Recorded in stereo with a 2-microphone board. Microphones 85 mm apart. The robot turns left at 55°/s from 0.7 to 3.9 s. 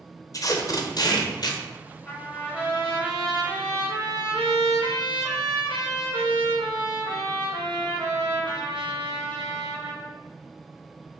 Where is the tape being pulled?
120° left, 0.6 m; by 1.6 s 70° left, 0.6 m.